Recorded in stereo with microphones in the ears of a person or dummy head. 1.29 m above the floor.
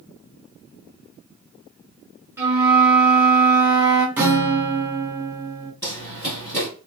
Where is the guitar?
5° right (ahead or behind), 0.5 m.